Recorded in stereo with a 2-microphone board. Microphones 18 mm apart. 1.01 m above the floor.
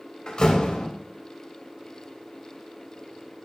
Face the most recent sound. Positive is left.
turn(degrees=50)  # may be behind; listen again after turning